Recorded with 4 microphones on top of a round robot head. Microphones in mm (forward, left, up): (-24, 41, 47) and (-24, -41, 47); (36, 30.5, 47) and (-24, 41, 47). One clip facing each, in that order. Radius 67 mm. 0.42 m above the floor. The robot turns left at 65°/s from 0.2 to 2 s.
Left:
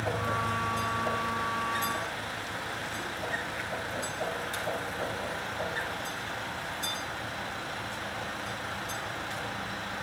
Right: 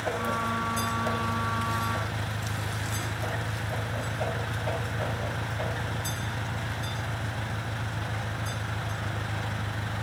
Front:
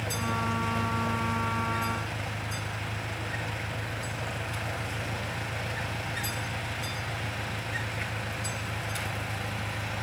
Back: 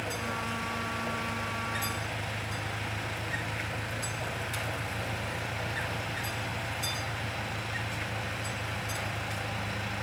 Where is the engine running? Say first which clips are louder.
Right 1 dB, front 3 dB; 30° left; by 10.0 s 90° right.